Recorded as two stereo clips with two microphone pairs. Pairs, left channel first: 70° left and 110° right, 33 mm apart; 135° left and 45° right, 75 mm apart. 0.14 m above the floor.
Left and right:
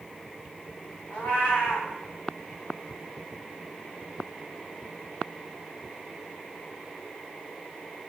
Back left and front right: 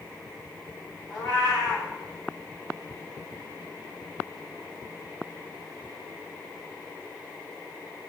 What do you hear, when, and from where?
1.1 s a cat meowing: 60° left, 4 m